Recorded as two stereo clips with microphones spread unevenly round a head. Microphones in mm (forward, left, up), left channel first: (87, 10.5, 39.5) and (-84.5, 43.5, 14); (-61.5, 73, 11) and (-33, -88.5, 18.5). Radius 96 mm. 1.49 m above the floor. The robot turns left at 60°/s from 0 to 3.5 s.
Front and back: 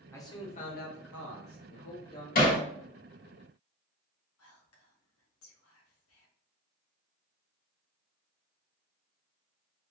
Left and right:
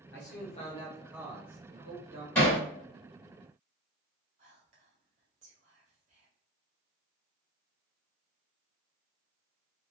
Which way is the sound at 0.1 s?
65° left.